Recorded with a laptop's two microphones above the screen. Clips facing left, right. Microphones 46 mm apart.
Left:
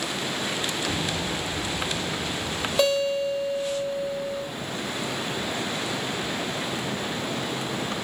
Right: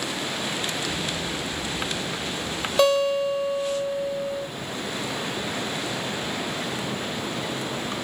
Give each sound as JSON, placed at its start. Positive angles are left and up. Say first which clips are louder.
{"t": 0.9, "sound": "an explosion", "louder": "left 1 dB", "side_deg": 50, "distance_m": 1.2}
{"t": 2.8, "sound": "a guitar", "louder": "right 3 dB", "side_deg": 0, "distance_m": 2.0}